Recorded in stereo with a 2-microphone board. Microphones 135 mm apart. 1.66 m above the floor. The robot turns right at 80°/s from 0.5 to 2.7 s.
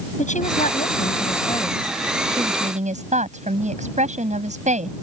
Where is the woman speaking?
65° left; by 4.9 s 120° right.